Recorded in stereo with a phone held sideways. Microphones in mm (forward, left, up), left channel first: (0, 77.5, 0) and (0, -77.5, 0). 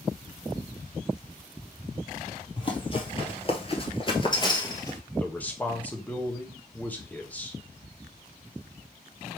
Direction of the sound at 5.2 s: 10° left (ahead or behind).